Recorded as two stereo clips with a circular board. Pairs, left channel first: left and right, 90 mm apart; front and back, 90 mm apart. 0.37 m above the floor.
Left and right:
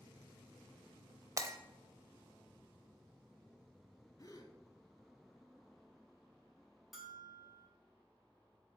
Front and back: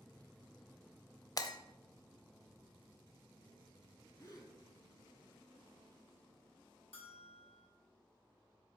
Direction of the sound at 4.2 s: 40° left.